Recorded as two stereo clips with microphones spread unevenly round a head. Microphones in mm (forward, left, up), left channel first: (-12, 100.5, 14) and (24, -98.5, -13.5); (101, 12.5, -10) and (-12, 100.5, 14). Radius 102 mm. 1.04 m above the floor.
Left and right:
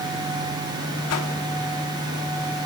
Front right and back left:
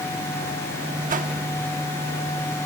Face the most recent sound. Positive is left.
turn(degrees=115)